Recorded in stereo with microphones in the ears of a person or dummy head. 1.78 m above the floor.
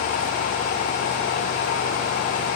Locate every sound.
Only background noise.